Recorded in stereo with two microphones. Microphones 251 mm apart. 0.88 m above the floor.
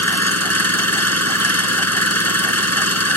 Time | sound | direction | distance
0.0 | an engine running | 90° left | ?